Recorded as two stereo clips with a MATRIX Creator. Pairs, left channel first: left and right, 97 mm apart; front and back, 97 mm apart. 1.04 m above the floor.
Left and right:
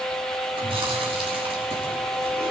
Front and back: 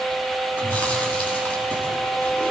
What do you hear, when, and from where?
0.6 s chewing: 75° right, 5 m